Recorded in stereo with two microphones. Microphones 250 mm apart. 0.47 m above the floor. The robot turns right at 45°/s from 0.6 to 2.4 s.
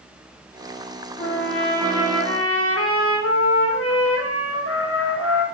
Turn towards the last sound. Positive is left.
turn(degrees=100)